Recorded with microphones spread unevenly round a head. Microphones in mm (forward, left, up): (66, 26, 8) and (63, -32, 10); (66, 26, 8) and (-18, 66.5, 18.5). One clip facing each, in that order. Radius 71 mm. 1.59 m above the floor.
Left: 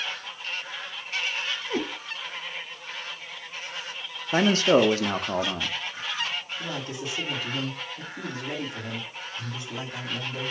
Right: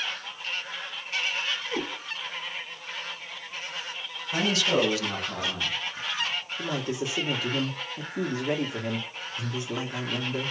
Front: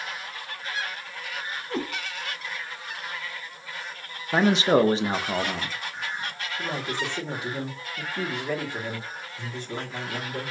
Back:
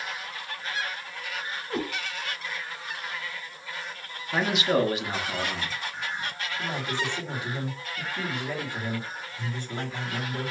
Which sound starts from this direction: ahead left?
A man speaking, at 4.3 s.